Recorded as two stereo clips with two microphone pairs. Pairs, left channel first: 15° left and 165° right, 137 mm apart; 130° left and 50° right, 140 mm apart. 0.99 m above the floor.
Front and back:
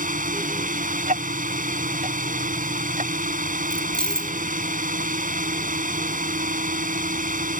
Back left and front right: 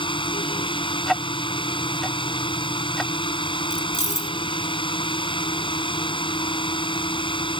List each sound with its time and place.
0.0 s a drone: straight behind
1.1 s ticking: 145° right
3.7 s keys jangling: 100° left